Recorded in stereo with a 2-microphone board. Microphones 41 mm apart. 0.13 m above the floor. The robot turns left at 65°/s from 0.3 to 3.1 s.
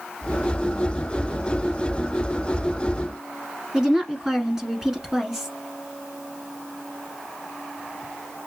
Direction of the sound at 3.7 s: 10° right (ahead or behind).